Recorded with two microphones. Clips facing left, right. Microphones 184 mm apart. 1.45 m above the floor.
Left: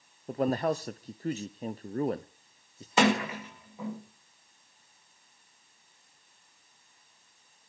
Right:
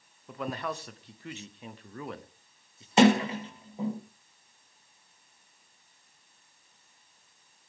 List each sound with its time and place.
0.3 s a man speaking: 40° left (ahead or behind), 0.6 m
3.0 s a sliding door: 30° right (ahead or behind), 3 m